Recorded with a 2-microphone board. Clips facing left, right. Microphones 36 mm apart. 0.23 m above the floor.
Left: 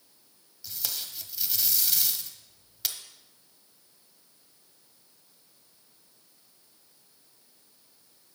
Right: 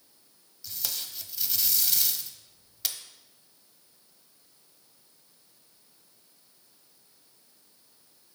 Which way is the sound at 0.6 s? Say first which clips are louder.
Even; centre (ahead or behind).